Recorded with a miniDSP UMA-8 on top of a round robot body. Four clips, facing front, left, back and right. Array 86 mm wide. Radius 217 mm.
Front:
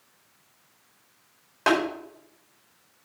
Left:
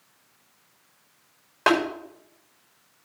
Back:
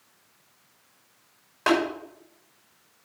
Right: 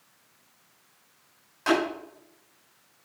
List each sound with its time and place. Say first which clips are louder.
1.7 s tapping: left 3 dB, even; 75° left, 5.5 m